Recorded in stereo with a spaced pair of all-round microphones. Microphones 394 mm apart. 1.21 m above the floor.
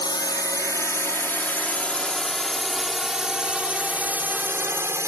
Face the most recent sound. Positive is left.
turn(degrees=-5)  # may be behind; listen again after turning